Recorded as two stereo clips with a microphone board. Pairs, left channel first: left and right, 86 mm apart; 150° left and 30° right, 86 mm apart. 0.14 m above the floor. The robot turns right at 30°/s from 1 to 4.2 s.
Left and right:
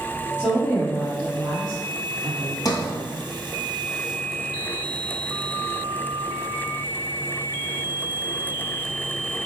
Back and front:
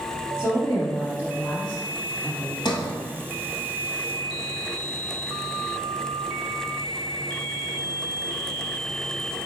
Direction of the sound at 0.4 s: Straight behind.